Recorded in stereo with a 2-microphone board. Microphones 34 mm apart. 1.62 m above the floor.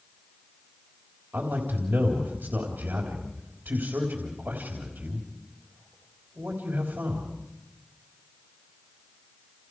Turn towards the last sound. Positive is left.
turn(degrees=-85)